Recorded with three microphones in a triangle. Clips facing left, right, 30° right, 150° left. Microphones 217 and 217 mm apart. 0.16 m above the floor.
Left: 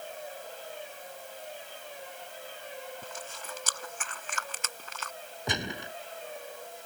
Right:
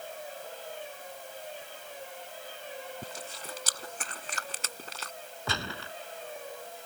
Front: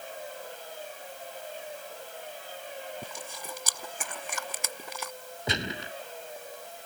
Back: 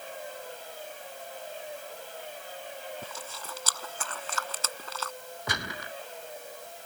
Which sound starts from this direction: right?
Chewing, at 3.0 s.